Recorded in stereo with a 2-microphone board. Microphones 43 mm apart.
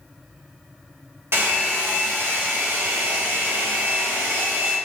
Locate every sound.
1.3 s a hair dryer: 65° right (ahead or behind), 1.0 m